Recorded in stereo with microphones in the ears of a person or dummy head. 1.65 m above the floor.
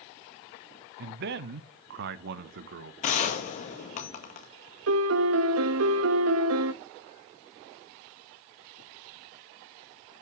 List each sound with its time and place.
1.0 s a man speaking: 50° right (ahead or behind), 0.6 m
3.0 s a gunshot: 40° left (ahead or behind), 1.6 m
4.9 s a piano: 80° right, 0.7 m